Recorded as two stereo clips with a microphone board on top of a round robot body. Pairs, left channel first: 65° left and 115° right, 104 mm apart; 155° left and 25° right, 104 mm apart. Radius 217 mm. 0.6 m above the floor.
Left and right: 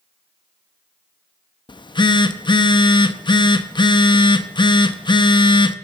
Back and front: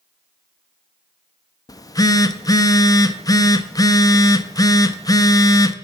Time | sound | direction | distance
1.7 | a phone buzzing | 105° left | 0.7 m